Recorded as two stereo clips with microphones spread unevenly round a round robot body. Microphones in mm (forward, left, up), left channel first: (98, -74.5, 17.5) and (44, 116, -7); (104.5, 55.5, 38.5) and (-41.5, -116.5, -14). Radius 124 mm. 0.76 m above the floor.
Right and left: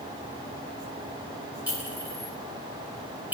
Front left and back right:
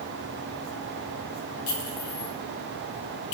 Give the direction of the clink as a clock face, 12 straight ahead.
11 o'clock.